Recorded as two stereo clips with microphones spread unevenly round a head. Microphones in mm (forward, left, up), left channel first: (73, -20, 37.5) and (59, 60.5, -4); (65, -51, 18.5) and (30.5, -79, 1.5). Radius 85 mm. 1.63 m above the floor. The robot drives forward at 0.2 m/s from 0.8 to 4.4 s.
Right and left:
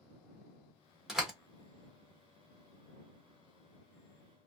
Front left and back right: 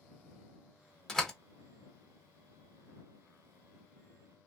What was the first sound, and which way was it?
A door slam, 10° right.